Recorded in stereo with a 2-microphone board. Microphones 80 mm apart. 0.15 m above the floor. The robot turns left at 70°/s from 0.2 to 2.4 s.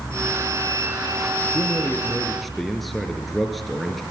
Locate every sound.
1.5 s a man speaking: 65° left, 3 m; by 4.0 s straight ahead, 3 m